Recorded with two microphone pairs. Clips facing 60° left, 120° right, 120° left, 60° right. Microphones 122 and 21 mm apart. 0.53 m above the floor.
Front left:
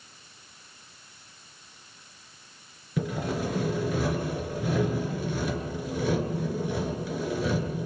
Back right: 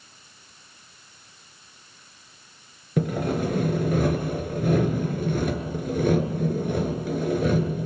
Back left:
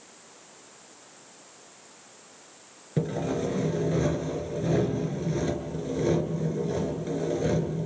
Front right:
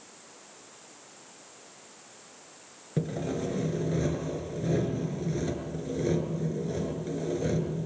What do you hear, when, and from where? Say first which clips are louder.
3.0 s sawing: back right 5 dB, back left 3 dB; 160° right, 3 m